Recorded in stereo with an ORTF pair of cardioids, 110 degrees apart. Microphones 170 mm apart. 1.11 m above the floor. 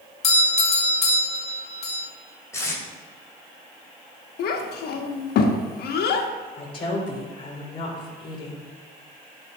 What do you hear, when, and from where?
0.2 s a doorbell: 40° left, 1.6 m
2.5 s tape being pulled: 15° left, 2.5 m
4.4 s a child speaking: 70° left, 1.2 m
6.6 s a woman speaking: 30° left, 3 m